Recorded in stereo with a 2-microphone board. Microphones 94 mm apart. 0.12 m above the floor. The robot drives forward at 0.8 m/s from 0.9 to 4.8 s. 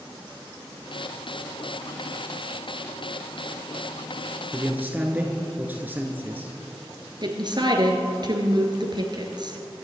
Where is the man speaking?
15° right (ahead or behind), 2 m; by 6.5 s 20° right (ahead or behind), 1.9 m.